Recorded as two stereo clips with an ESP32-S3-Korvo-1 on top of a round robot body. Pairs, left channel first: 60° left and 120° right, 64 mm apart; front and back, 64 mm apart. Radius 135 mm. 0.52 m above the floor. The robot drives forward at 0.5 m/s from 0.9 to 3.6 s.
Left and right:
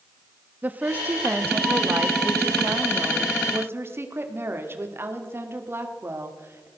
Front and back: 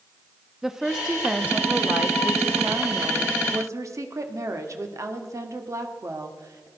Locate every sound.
0.6 s a woman speaking: 105° right, 1.2 m; by 6.7 s 160° right, 1.9 m